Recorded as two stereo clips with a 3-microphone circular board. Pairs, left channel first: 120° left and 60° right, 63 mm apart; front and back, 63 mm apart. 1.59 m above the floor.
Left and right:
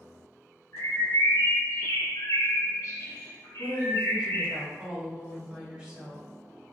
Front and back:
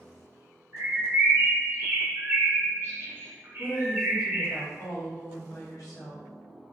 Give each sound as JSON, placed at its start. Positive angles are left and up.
{"t": 0.7, "sound": "a bird", "azimuth_deg": 130, "distance_m": 0.9}
{"t": 3.6, "sound": "a woman speaking", "azimuth_deg": 10, "distance_m": 1.3}